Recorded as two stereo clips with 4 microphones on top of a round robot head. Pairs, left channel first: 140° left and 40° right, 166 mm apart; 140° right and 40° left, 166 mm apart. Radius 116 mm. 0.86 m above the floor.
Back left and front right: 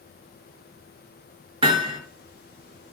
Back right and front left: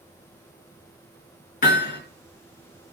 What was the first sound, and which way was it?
Hammering, 100° right.